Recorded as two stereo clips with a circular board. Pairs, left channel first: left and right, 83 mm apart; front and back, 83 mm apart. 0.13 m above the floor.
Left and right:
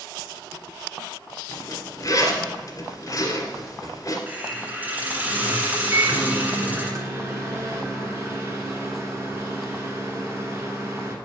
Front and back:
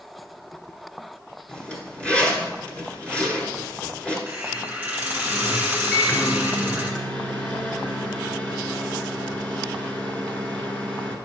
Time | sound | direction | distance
1.5 | a zipper | 70° left | 1.7 m
4.3 | a hiss | 125° right | 1.8 m
5.9 | a microwave | 65° right | 1.3 m